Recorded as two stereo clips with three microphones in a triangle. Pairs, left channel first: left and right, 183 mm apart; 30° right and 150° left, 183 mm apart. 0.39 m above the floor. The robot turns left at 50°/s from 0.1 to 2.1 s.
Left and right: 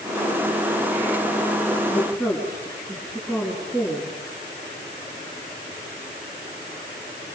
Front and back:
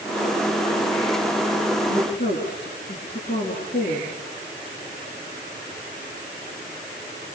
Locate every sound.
1.9 s a woman speaking: straight ahead, 6 m; by 4.1 s 10° right, 6 m